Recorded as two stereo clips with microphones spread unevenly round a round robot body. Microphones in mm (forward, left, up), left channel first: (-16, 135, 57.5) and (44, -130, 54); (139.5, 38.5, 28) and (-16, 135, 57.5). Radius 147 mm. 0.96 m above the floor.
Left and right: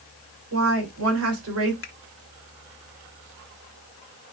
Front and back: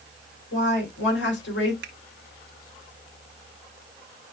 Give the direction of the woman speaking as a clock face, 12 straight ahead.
1 o'clock.